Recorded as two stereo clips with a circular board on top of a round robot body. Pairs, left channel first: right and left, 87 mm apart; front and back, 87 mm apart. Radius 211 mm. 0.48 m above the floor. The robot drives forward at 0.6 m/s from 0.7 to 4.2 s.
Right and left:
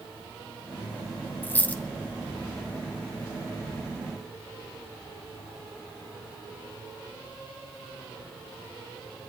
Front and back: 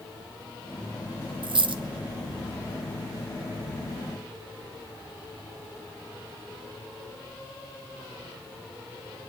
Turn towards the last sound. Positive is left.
turn(degrees=-175)